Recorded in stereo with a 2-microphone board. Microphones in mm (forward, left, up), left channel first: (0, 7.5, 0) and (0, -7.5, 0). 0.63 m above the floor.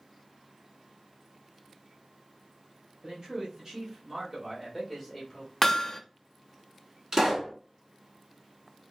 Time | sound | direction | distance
3.0 | a man speaking | 35° right (ahead or behind) | 1.6 m
5.6 | hammering | 20° left (ahead or behind) | 0.5 m
7.1 | a pop | 40° right (ahead or behind) | 1.7 m